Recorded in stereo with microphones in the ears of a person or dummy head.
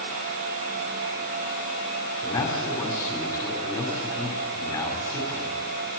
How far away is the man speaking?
About 5.5 m.